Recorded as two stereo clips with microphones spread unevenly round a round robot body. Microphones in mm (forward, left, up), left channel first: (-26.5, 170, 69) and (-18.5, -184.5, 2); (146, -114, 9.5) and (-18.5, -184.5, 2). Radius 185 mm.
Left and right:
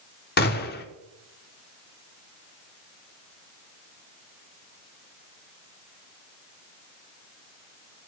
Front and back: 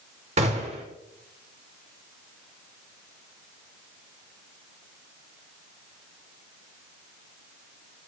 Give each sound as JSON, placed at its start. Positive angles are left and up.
{"t": 0.4, "sound": "a gunshot", "azimuth_deg": 140, "distance_m": 0.7}